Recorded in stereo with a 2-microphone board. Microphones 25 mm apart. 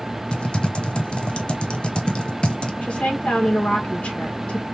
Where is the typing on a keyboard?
45° left (ahead or behind), 0.6 m.